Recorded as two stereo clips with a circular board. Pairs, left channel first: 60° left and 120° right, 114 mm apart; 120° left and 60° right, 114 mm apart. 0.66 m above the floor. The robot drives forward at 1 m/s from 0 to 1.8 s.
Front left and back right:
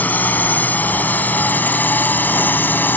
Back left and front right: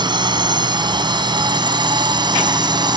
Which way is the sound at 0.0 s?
15° right.